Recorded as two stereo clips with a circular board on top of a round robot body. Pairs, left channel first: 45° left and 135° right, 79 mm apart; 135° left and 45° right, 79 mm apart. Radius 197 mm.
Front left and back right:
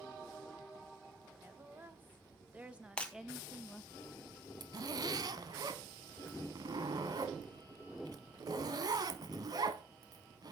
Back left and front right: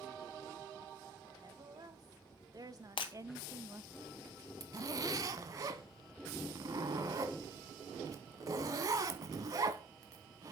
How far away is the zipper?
About 0.7 m.